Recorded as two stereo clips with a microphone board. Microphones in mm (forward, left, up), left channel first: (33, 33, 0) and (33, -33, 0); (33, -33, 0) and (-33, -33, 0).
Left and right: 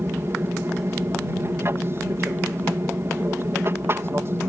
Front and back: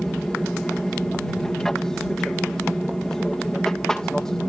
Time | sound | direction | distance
0.0 | an aircraft | 75° right | ?